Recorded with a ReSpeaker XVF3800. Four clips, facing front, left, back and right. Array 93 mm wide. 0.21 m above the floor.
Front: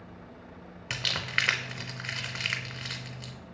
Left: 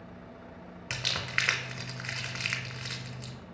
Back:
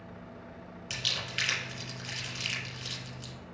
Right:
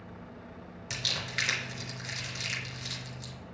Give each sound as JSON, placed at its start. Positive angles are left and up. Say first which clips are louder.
{"t": 0.9, "sound": "crumpling", "louder": "left 3 dB, front 7 dB", "azimuth_deg": 35, "distance_m": 0.8}